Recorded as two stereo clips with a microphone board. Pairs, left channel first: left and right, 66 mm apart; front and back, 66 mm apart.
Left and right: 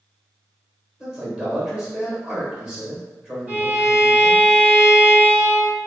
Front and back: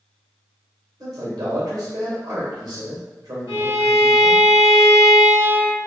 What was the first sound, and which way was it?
A man speaking, 165° right.